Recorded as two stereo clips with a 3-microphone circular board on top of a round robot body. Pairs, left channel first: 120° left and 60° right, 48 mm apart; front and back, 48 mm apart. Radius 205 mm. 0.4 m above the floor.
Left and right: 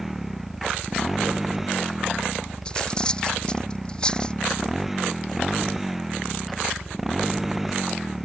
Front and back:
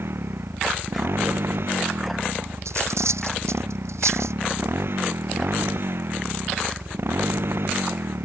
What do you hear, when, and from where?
0.0 s a motorcycle: 145° right
2.6 s cutlery clinking: 170° right